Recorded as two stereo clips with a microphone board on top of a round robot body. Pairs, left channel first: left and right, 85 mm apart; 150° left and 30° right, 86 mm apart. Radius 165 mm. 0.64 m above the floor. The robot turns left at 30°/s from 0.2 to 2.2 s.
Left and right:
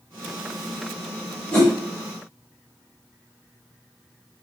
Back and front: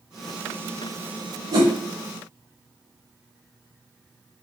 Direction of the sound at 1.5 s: 15° left.